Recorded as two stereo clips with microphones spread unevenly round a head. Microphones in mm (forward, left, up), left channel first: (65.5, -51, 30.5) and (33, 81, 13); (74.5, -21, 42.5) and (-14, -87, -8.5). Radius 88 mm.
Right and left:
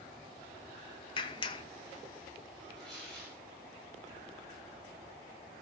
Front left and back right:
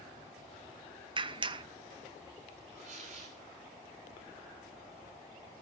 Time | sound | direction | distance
1.2 | a clap | 140° right | 0.6 m
2.8 | tearing paper | 160° right | 4.5 m